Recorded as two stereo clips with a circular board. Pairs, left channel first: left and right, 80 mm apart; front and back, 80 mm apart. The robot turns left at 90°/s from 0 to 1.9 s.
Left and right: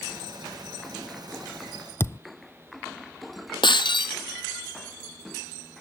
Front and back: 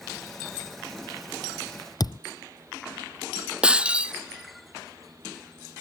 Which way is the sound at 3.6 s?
105° left.